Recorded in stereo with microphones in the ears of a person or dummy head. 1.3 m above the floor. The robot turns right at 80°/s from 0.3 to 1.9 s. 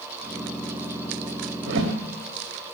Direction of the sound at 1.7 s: 50° right (ahead or behind).